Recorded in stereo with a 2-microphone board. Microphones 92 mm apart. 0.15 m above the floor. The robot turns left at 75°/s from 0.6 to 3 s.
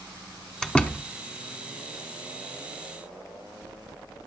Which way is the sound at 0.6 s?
5° left (ahead or behind).